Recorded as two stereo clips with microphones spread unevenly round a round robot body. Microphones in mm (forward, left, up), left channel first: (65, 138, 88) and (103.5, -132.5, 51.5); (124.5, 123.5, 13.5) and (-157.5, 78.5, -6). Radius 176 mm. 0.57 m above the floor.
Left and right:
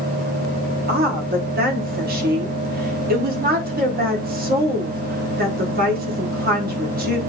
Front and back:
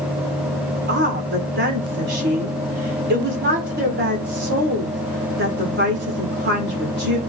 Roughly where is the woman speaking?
Behind right.